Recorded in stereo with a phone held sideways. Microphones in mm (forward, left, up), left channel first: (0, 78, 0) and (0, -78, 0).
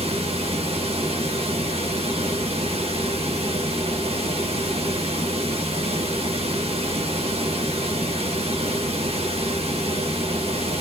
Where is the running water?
40° right (ahead or behind), 0.8 m.